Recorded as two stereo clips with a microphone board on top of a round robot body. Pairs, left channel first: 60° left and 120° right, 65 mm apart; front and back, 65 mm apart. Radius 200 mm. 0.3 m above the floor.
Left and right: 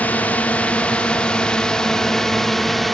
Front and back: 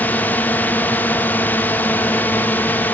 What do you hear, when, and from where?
0.0 s a drone: 25° left; by 3.0 s 30° right